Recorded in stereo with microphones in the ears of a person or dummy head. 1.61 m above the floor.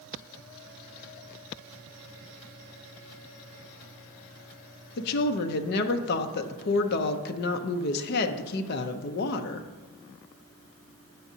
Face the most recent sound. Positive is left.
turn(degrees=55)  # may be behind; listen again after turning